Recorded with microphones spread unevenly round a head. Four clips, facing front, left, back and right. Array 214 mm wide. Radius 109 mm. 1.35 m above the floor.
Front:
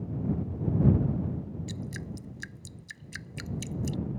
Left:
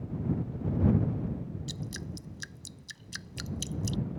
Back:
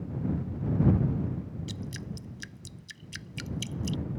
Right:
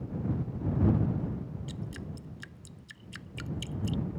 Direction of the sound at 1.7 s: 55° left.